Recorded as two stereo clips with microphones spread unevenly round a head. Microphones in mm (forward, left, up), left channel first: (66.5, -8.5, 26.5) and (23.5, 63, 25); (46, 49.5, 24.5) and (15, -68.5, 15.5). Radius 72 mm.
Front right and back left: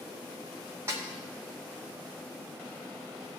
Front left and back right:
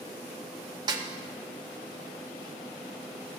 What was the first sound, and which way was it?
A snare drum, 170° right.